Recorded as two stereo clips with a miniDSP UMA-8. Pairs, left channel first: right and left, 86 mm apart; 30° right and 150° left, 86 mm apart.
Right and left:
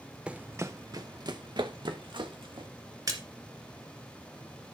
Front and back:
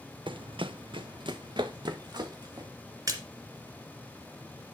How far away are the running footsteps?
About 0.6 m.